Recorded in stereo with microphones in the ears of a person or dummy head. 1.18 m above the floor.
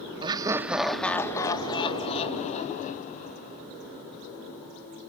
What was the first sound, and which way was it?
Laughter, 25° right (ahead or behind).